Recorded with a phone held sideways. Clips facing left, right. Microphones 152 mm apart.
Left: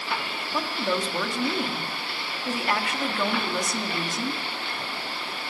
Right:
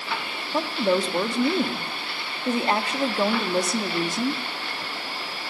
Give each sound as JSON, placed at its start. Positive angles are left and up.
{"t": 0.5, "sound": "a woman speaking", "side_deg": -30, "distance_m": 1.9}